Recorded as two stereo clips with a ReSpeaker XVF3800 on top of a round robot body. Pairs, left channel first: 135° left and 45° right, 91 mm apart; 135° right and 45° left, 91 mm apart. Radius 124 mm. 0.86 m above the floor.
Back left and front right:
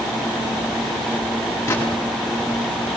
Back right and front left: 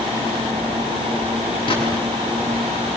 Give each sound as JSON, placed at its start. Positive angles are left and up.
{"t": 1.7, "sound": "a gunshot", "azimuth_deg": -160, "distance_m": 8.0}